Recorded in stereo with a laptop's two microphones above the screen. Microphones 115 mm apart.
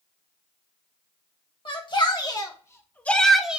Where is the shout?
45° left (ahead or behind), 1.4 m; by 3.6 s 10° right (ahead or behind), 0.8 m.